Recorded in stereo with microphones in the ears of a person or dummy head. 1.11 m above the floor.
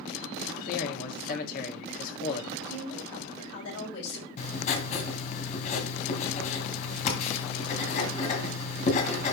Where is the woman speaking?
75° left (ahead or behind), 6.5 m.